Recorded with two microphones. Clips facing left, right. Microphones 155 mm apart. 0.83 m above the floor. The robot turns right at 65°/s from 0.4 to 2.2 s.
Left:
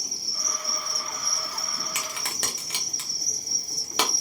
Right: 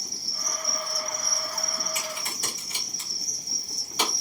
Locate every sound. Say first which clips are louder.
0.0 s an insect: even; 20° left, 0.8 m; by 4.2 s 135° left, 0.8 m
1.9 s a crack: right 1 dB; 75° left (ahead or behind), 0.8 m; by 4.1 s 80° left, 0.8 m